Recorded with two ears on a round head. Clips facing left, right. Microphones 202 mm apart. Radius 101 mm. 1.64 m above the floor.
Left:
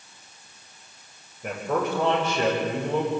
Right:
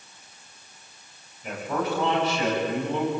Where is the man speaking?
45° left (ahead or behind), 7.5 m; by 3.1 s 40° left (ahead or behind), 7.5 m.